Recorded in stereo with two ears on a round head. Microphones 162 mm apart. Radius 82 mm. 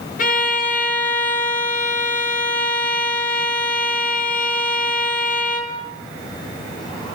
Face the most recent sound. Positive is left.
turn(degrees=45)  # may be behind; listen again after turning